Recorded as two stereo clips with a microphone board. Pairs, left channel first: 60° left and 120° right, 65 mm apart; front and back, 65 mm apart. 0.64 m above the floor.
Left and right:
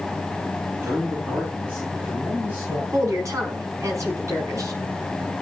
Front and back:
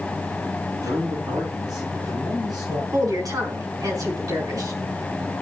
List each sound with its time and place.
0.8 s a man speaking: 170° right, 8 m; by 2.8 s 175° right, 9 m
2.9 s a woman speaking: 155° right, 5.5 m